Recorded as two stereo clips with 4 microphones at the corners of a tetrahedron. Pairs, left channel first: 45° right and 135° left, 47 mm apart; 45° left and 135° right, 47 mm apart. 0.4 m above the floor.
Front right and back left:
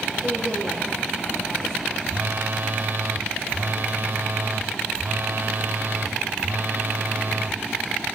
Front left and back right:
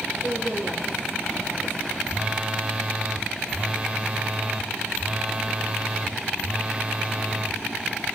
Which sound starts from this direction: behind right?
A woman speaking, at 0.2 s.